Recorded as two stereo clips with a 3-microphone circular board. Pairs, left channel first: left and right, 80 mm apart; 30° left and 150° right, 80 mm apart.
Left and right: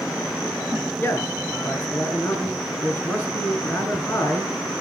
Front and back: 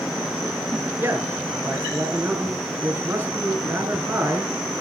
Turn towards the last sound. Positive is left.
turn(degrees=150)